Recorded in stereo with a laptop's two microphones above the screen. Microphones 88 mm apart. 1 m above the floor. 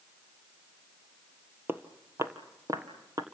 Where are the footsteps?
25° right (ahead or behind), 1.1 m; by 3.2 s 40° right (ahead or behind), 1.8 m.